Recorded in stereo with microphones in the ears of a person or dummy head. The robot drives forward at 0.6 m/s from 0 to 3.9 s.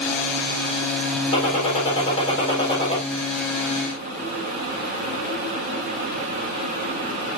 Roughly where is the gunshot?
Left.